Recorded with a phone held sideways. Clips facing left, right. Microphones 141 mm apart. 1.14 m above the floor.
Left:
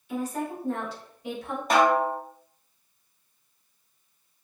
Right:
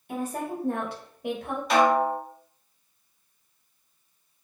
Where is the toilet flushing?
I don't hear a toilet flushing.